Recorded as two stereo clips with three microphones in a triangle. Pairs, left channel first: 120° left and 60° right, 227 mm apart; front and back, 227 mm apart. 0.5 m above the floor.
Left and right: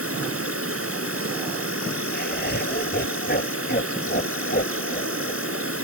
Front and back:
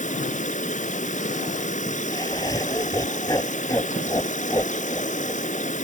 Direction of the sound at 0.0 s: 55° right.